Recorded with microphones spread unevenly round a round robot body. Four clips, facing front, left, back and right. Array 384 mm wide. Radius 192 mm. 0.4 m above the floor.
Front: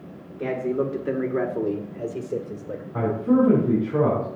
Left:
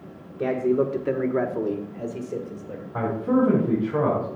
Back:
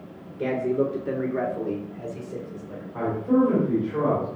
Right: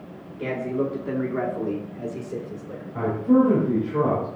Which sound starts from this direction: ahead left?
A man speaking, at 2.9 s.